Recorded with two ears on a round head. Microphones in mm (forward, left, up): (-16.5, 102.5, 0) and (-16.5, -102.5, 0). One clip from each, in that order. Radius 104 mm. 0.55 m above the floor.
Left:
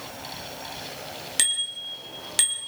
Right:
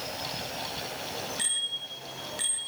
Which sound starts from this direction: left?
A bicycle bell, at 1.4 s.